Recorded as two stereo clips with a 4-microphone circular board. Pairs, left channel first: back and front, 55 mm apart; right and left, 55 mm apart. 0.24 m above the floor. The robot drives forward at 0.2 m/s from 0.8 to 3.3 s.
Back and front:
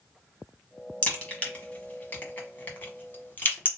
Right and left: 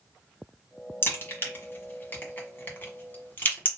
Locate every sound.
1.0 s a crack: 120° right, 1.4 m; by 3.7 s 140° right, 1.6 m